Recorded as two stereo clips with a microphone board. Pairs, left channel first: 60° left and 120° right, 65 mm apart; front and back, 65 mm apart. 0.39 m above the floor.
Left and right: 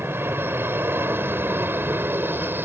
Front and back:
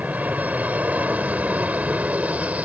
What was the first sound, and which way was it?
An aircraft, 135° right.